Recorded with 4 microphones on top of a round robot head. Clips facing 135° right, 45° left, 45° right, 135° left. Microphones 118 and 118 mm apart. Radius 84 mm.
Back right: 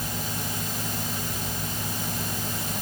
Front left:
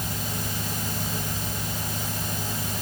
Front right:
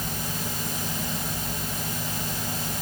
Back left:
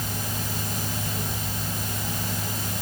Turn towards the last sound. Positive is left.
No sound to turn to.